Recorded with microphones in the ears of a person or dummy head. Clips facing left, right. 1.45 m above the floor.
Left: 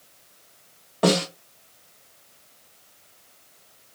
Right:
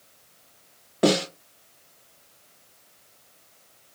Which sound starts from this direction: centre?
A snare drum, at 1.0 s.